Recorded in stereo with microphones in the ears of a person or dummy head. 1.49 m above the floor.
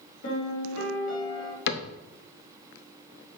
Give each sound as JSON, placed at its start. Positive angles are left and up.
{"t": 0.2, "sound": "a piano", "side_deg": 50, "distance_m": 3.0}
{"t": 1.7, "sound": "a cupboard door", "side_deg": 60, "distance_m": 0.6}